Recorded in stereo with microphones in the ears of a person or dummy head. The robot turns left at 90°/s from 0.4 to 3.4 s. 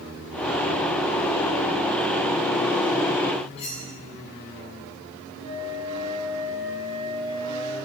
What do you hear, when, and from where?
3.6 s cutlery clinking: 30° left (ahead or behind), 7 m
5.4 s a flute: 80° right, 5.5 m